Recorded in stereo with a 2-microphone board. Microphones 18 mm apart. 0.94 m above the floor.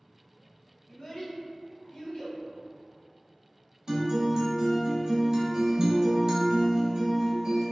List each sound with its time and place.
0.9 s a child speaking: 70° left (ahead or behind), 1.3 m
3.9 s a guitar: 35° right (ahead or behind), 1.4 m